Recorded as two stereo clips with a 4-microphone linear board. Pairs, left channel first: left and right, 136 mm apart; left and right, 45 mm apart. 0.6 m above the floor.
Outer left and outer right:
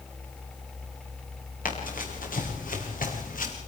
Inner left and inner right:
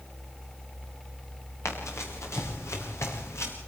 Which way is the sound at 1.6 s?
85° left.